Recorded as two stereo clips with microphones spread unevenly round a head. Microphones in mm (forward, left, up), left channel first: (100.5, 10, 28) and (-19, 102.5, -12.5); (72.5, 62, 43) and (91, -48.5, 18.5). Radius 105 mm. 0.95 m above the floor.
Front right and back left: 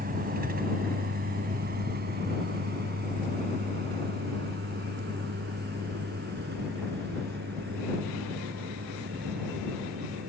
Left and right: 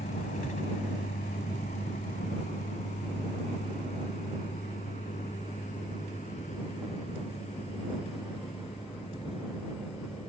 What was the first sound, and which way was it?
A vehicle, 120° left.